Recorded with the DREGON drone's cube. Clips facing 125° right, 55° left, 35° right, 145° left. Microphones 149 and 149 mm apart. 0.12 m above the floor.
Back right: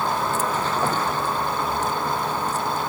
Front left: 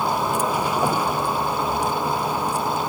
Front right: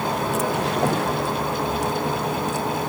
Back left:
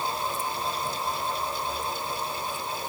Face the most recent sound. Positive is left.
turn(degrees=-20)